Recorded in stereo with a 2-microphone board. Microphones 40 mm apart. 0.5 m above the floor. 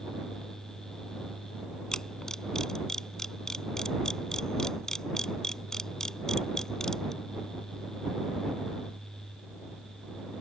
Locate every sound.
1.9 s a camera shutter: 15° left (ahead or behind)